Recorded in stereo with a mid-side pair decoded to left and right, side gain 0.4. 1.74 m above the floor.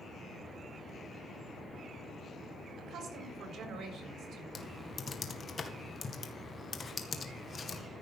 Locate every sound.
2.8 s a woman speaking: 65° right, 4 m
4.5 s typing on a keyboard: 40° left, 1.9 m